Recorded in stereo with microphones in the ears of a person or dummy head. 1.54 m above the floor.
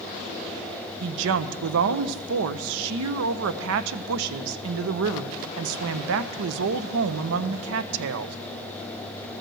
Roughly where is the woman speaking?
Right.